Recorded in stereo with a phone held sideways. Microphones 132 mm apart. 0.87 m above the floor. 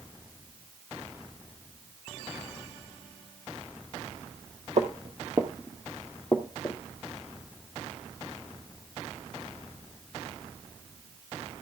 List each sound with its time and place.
4.8 s footsteps: 55° right (ahead or behind), 1.5 m; by 6.8 s 20° left (ahead or behind), 1.9 m